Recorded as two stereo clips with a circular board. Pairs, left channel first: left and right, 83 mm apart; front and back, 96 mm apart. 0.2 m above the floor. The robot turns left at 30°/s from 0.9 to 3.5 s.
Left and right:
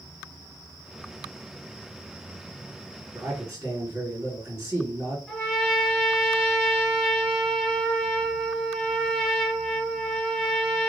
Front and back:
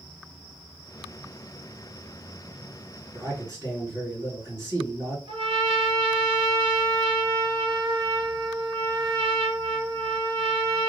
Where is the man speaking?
130° right, 2 m; by 5.2 s 145° right, 2 m.